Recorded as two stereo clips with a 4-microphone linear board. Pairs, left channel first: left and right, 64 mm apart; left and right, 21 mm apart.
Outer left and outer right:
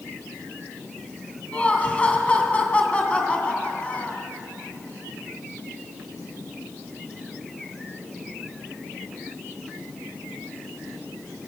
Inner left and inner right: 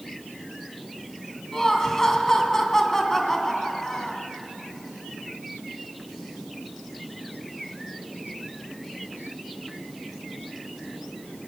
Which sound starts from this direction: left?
Laughter, at 1.5 s.